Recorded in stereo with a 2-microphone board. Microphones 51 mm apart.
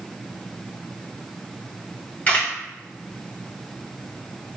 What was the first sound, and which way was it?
A camera shutter, 30° left (ahead or behind).